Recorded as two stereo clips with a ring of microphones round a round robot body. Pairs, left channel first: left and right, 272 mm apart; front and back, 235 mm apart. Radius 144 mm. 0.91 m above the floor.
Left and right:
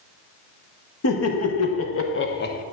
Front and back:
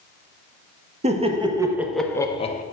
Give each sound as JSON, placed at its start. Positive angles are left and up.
{"t": 1.0, "sound": "laughter", "azimuth_deg": 120, "distance_m": 1.7}